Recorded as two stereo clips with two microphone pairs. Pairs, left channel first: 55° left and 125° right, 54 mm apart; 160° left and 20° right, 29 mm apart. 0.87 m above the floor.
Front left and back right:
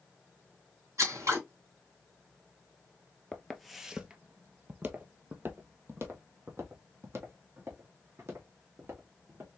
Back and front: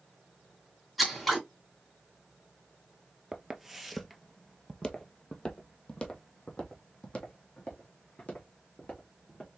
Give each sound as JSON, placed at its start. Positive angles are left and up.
{"t": 1.0, "sound": "scissors", "azimuth_deg": -110, "distance_m": 2.5}
{"t": 3.3, "sound": "footsteps", "azimuth_deg": -10, "distance_m": 0.9}